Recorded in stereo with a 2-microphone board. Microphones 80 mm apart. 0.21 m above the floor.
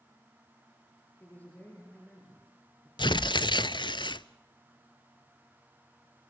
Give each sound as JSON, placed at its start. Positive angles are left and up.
{"t": 1.2, "sound": "a man speaking", "side_deg": 20, "distance_m": 5.0}
{"t": 3.0, "sound": "tearing paper", "side_deg": 80, "distance_m": 0.5}